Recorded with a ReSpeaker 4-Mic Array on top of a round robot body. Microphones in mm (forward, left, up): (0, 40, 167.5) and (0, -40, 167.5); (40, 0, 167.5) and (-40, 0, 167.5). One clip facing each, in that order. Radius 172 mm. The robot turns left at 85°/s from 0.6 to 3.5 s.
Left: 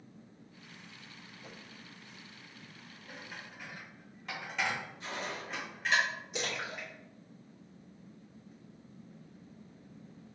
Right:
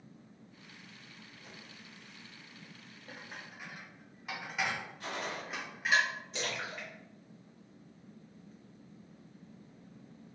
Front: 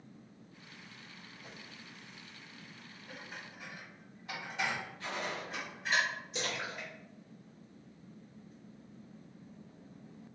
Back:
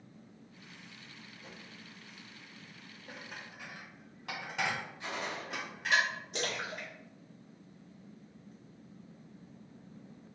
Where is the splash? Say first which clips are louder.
Left 2 dB, back 1 dB; 170° left, 2.0 m.